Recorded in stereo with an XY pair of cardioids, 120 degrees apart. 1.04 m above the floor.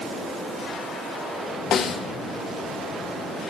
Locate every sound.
1.7 s a snare drum: 50° left, 1.2 m